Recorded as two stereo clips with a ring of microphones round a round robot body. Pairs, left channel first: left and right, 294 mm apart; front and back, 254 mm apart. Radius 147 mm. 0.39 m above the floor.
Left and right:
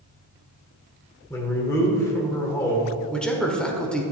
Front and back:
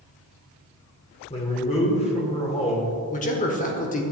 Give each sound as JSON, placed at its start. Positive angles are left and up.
{"t": 1.3, "sound": "a man speaking", "azimuth_deg": 20, "distance_m": 1.2}
{"t": 3.1, "sound": "a man speaking", "azimuth_deg": 5, "distance_m": 1.0}